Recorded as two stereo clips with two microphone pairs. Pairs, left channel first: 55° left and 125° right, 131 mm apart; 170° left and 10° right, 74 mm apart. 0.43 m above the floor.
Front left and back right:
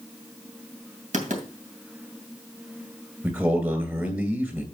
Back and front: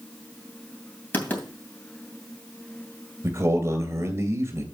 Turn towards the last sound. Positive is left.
turn(degrees=-55)